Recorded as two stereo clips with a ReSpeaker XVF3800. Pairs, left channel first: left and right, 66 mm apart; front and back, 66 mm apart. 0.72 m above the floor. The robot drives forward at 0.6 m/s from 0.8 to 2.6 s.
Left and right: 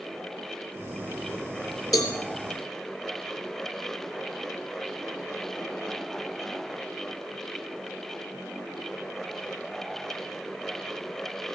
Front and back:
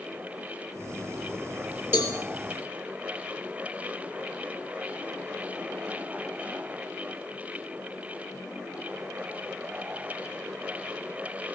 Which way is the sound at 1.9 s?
125° left.